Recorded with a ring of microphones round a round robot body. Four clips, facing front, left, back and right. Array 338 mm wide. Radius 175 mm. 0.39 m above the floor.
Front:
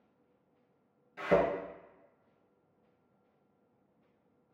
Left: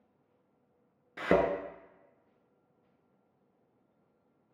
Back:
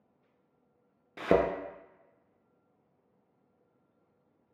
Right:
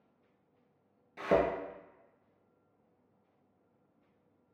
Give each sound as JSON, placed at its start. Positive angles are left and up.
{"t": 1.2, "sound": "a thud", "azimuth_deg": 150, "distance_m": 0.5}